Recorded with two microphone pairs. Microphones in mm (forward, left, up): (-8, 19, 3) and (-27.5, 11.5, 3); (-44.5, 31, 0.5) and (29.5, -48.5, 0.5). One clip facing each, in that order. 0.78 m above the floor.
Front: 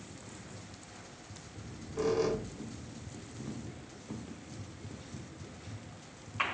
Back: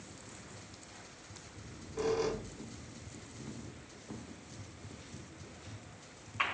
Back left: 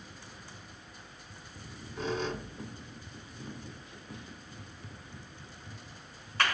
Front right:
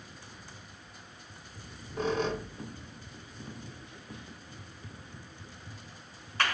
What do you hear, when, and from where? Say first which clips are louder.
1.5 s a squeak: front 3 dB, front right 5 dB; 60° right, 0.8 m